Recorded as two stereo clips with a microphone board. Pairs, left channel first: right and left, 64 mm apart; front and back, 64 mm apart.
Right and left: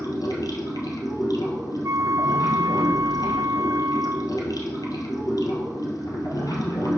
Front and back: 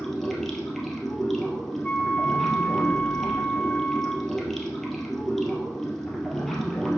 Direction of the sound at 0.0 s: 85° right.